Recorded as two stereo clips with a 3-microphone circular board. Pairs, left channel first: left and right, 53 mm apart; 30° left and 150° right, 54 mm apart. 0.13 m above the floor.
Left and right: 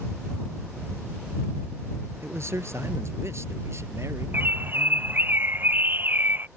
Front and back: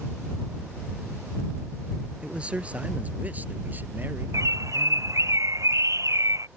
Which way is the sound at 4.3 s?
140° right.